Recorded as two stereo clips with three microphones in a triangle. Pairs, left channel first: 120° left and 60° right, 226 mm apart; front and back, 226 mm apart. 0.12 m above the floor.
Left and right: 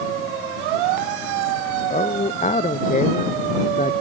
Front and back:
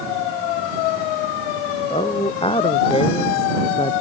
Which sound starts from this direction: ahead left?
A man speaking, at 1.9 s.